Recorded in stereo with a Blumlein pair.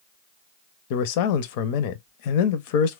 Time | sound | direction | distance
0.9 | a man speaking | 45° left | 0.5 m